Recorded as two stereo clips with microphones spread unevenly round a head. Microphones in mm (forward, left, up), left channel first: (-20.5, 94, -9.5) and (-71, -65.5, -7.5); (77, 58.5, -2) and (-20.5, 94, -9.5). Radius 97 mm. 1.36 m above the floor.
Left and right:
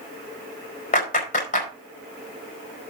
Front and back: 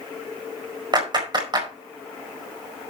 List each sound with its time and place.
0.9 s a clap: 115° left, 4.5 m